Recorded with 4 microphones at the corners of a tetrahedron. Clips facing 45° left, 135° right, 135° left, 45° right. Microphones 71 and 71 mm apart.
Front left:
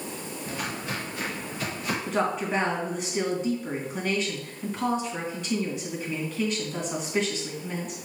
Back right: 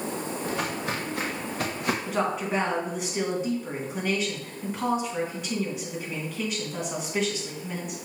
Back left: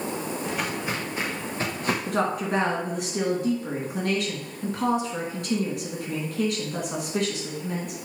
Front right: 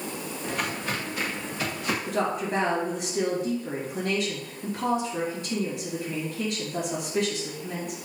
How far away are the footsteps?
About 2.5 m.